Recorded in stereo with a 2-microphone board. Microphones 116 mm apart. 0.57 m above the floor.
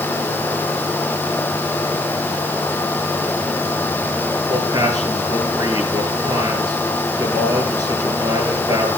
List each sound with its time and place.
4.5 s a man speaking: 35° right (ahead or behind), 9 m